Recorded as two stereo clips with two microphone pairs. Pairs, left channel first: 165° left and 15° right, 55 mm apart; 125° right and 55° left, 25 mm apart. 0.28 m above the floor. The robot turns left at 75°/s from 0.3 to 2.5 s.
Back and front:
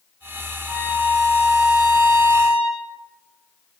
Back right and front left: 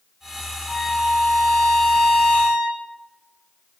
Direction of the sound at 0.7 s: Straight ahead.